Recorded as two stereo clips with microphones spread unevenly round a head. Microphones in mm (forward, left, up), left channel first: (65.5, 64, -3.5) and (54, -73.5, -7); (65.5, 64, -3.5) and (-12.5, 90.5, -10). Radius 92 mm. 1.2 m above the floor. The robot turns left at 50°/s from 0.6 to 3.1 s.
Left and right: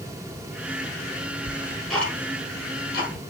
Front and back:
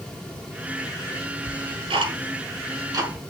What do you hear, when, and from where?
1.5 s ticking: 165° right, 6 m; by 3.2 s 115° left, 6 m